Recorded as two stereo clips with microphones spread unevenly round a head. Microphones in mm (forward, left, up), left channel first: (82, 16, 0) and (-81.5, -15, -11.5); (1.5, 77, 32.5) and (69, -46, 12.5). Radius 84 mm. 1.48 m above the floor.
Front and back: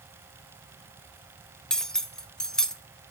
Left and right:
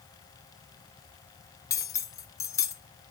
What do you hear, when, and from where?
1.7 s cutlery clinking: 90° left, 0.6 m